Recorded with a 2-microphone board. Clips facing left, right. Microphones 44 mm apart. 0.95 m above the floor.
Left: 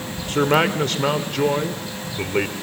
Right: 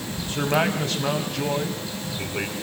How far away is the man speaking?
About 2.5 m.